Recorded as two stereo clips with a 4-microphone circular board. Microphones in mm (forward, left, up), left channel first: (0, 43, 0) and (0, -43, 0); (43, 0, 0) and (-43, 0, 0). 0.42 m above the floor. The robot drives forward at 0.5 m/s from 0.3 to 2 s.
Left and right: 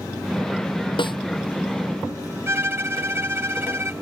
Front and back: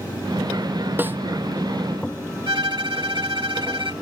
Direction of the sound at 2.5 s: 150° right.